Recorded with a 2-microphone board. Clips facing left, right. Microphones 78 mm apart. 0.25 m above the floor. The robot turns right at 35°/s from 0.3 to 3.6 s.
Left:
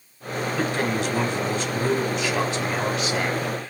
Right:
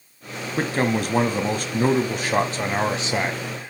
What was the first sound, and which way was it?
A man speaking, 125° right.